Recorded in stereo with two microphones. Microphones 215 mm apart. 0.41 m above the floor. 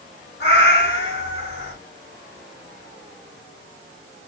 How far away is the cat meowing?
About 1.2 m.